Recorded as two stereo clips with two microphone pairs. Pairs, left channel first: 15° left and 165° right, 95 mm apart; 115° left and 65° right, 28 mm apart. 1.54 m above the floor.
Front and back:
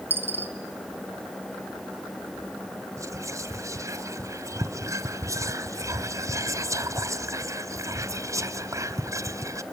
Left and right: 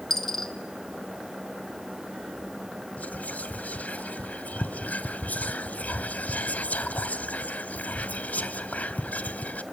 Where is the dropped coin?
175° right, 0.8 m.